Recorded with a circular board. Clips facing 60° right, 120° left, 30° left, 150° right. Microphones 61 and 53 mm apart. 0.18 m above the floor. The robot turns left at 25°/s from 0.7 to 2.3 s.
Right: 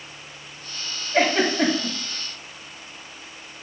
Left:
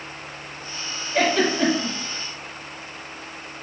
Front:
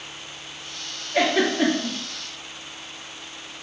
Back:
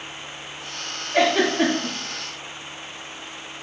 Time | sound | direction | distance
1.1 | a giggle | 95° right | 1.2 m